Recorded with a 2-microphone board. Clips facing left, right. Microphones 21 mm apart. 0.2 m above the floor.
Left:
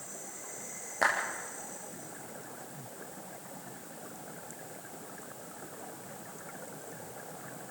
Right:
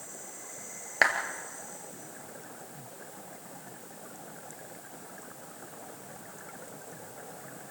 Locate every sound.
1.0 s a clap: 70° right (ahead or behind), 3 m